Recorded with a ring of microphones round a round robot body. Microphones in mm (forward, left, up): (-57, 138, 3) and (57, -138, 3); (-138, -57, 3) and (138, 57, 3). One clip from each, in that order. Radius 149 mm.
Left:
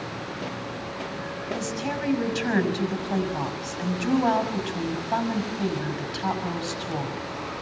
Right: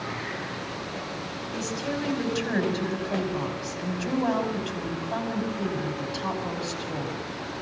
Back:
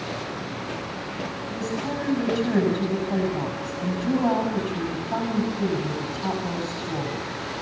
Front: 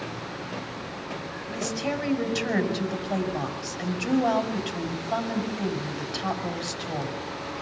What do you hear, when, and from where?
1.5 s a woman speaking: 20° left, 6 m